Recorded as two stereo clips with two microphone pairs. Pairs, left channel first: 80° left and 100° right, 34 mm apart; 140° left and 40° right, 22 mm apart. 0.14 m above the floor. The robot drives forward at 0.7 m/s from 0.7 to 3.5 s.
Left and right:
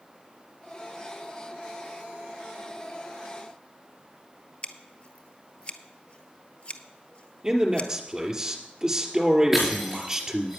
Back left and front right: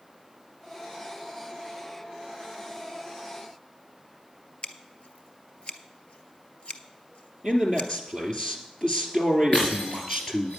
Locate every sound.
4.6 s scissors: 125° left, 0.8 m
7.4 s a man speaking: 170° right, 2.5 m
9.5 s breaking glass: straight behind, 5 m